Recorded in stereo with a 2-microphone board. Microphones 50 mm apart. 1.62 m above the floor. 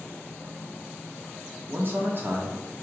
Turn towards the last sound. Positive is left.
turn(degrees=-45)  # may be behind; listen again after turning